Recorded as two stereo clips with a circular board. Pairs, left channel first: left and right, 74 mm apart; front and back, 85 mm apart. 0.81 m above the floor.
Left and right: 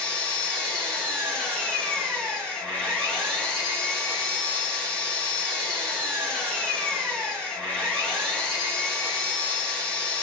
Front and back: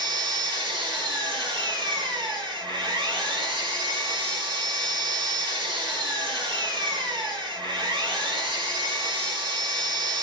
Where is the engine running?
165° left, 1.5 m.